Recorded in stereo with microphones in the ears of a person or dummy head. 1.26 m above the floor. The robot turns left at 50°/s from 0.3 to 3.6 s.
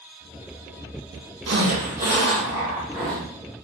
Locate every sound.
1.5 s a zipper: 105° right, 1.4 m; by 3.2 s 165° left, 1.4 m